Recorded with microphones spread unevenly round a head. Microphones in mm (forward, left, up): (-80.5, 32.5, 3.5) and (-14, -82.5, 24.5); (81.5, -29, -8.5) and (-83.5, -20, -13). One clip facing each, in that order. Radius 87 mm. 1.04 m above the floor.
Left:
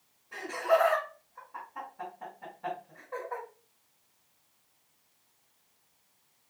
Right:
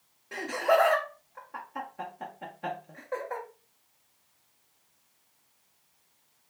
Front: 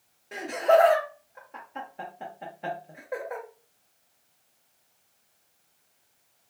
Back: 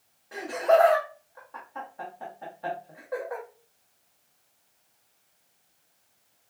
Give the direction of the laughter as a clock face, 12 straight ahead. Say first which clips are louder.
Right 2 dB, front 1 dB; 2 o'clock.